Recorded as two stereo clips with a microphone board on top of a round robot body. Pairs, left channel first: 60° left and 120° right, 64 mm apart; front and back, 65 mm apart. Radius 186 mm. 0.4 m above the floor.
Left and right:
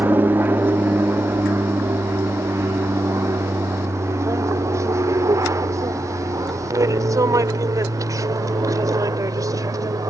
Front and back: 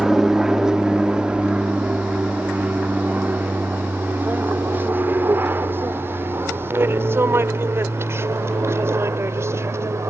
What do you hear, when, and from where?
0.0 s an aircraft: 100° right; by 10.1 s 140° right